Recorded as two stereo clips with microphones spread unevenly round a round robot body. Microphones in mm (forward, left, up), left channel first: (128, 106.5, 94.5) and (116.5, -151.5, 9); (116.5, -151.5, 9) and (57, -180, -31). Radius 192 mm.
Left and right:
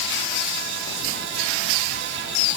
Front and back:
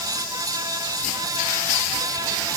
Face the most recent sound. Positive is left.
No sound to turn to.